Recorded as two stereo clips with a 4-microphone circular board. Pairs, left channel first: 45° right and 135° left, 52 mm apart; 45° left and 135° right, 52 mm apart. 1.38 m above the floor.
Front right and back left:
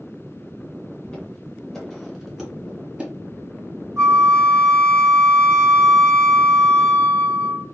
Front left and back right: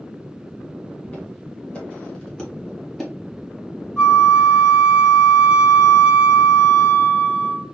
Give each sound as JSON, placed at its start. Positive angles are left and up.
{"t": 1.1, "sound": "footsteps", "azimuth_deg": 5, "distance_m": 1.5}
{"t": 4.0, "sound": "a flute", "azimuth_deg": 110, "distance_m": 2.0}